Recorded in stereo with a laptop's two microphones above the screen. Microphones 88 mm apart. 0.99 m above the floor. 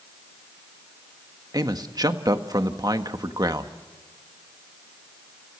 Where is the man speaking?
50° right (ahead or behind), 1.4 m.